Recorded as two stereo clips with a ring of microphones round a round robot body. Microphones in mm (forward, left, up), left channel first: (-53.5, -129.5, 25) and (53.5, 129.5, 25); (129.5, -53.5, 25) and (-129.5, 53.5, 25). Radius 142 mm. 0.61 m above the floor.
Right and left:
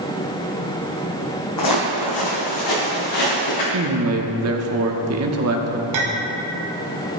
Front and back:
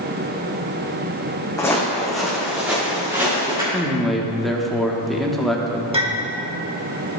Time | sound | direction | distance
1.6 | footsteps | 100° right | 1.6 m
3.7 | a man speaking | 65° left | 1.0 m
5.9 | a clink | 85° left | 1.3 m